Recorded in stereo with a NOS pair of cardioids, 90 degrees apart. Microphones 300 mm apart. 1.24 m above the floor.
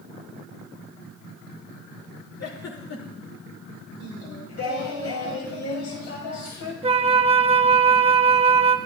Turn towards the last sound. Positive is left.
turn(degrees=-20)